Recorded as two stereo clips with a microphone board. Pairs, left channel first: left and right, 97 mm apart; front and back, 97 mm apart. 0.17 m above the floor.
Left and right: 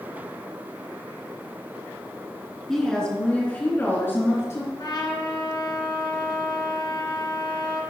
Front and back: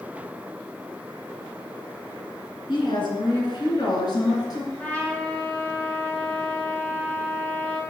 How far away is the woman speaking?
About 2.5 m.